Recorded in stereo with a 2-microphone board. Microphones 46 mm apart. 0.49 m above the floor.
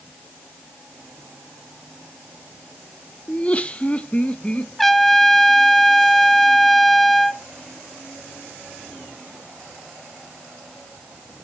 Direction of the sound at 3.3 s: 30° left (ahead or behind).